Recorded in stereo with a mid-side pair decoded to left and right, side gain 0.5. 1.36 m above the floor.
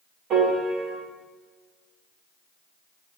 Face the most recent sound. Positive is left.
turn(degrees=-65)